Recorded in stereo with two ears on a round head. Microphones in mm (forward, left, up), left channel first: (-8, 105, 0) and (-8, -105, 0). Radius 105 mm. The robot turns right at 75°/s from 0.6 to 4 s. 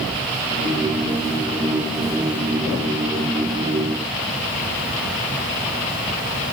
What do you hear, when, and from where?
Only background noise.